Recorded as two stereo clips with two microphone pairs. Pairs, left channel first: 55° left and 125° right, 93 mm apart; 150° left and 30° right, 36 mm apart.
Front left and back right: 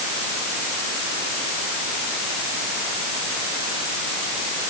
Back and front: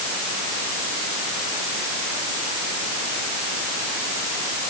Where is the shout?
No shout in this recording.